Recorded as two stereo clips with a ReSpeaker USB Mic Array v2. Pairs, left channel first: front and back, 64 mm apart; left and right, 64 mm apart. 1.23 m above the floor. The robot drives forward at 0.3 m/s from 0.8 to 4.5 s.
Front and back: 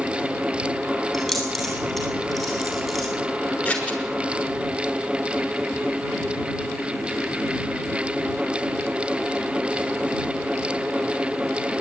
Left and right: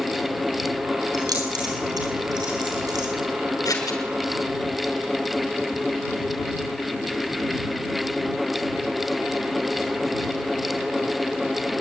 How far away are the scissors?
About 6 m.